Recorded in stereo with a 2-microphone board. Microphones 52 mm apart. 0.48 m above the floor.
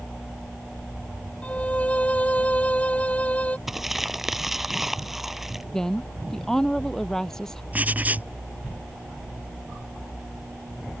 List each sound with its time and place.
1.4 s a violin: 25° left (ahead or behind)
3.7 s crumpling: 5° right (ahead or behind)
5.7 s a woman speaking: 10° left (ahead or behind)
7.7 s writing: 30° right (ahead or behind)